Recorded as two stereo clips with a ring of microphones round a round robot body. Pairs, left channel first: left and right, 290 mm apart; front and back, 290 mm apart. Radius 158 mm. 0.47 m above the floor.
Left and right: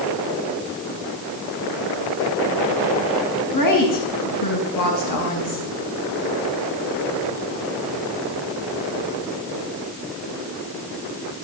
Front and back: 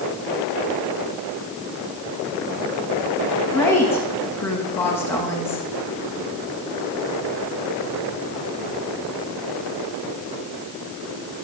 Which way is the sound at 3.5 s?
80° left.